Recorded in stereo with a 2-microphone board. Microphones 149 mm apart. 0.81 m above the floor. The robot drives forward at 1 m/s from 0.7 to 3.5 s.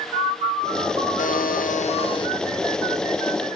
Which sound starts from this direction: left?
A buzzer, at 1.2 s.